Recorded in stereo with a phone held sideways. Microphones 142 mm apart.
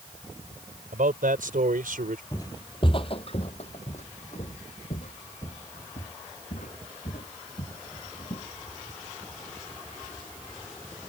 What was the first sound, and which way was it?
A man speaking, 75° right (ahead or behind).